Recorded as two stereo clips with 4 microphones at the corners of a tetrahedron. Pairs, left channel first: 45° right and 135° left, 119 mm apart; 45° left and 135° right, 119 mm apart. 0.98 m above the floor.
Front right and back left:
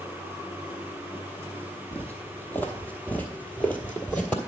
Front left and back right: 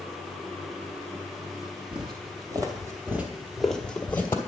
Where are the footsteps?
115° right, 1.4 m; by 4.4 s 20° left, 1.0 m.